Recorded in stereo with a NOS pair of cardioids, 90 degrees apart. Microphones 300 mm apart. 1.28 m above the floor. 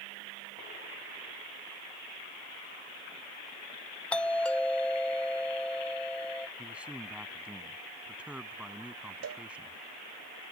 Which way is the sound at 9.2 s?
60° right.